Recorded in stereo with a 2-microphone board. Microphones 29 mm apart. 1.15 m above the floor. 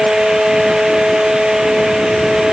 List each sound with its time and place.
Only background noise.